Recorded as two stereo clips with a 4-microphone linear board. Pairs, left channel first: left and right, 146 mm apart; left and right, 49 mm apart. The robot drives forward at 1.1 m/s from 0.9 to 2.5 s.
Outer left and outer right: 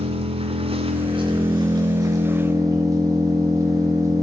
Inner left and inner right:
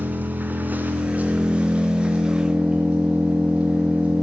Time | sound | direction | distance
0.0 | an engine running | 40° right (ahead or behind) | 2 m